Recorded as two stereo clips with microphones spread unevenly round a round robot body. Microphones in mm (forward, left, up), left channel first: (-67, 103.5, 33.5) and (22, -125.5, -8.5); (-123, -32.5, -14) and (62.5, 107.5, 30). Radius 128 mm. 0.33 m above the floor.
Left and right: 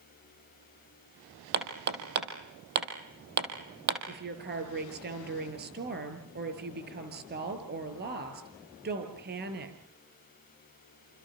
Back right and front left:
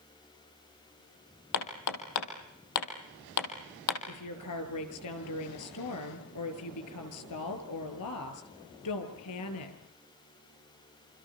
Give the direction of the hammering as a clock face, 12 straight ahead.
4 o'clock.